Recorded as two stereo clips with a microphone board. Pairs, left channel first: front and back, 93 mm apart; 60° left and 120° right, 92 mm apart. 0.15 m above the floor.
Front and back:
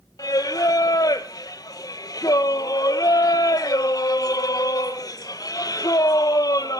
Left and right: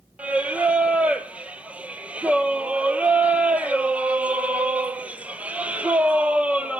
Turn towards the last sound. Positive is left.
turn(degrees=-45)